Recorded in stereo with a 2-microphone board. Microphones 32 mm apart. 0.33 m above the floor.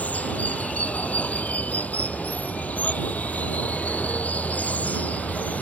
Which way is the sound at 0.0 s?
55° left (ahead or behind).